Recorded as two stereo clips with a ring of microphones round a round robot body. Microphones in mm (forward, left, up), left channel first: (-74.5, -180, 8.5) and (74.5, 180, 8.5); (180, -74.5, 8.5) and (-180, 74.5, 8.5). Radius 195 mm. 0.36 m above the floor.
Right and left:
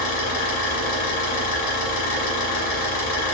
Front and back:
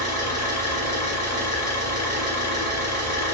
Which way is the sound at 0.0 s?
105° right.